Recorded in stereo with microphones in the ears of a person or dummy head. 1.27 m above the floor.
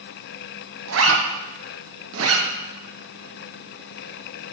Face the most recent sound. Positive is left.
turn(degrees=-75)  # may be behind; listen again after turning